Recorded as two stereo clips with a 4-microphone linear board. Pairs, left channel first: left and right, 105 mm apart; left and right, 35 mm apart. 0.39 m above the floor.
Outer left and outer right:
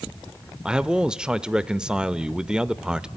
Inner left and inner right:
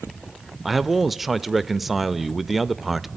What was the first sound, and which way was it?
A man speaking, 10° right (ahead or behind).